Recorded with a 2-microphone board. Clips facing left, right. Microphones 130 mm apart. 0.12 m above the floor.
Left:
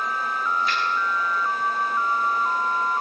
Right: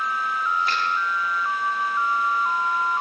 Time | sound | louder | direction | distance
0.7 | a finger snap | even | 50° right (ahead or behind) | 9.5 m